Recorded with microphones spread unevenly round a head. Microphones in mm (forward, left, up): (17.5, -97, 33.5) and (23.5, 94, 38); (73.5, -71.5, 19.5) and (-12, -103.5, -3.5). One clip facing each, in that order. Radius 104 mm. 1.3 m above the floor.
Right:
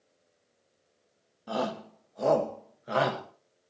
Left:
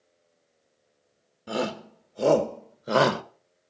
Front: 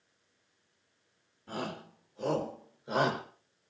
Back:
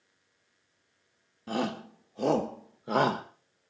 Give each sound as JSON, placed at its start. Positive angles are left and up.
{"t": 1.5, "sound": "a shout", "azimuth_deg": 155, "distance_m": 1.8}